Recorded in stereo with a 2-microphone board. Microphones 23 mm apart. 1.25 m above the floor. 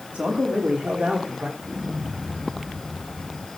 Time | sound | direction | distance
0.1 | a man speaking | 75° right (ahead or behind) | 2.5 m
1.6 | an explosion | 45° right (ahead or behind) | 2.5 m